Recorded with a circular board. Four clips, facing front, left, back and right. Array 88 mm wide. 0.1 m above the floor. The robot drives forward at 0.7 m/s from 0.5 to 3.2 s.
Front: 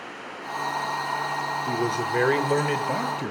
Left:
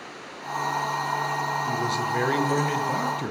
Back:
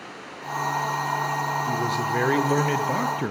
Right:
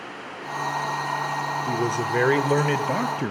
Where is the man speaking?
55° right, 1.9 m; by 3.3 s 120° right, 1.9 m.